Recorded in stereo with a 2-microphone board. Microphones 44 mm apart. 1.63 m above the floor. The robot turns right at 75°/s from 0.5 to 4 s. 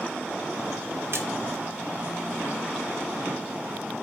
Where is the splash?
55° right (ahead or behind), 1.4 m; by 1.3 s 65° right (ahead or behind), 1.4 m.